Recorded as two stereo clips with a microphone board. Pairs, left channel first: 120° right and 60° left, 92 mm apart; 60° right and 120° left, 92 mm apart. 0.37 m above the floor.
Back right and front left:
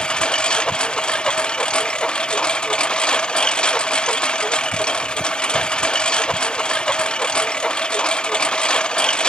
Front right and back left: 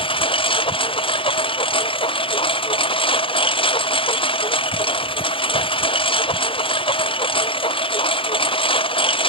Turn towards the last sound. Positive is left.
turn(degrees=-40)